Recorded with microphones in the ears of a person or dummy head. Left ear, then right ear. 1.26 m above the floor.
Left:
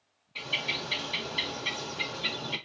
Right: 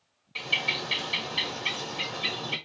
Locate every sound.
0.3 s a bird: 30° right (ahead or behind), 1.4 m